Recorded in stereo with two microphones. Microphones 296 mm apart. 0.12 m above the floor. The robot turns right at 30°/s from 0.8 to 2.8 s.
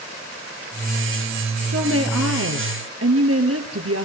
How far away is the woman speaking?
About 3 m.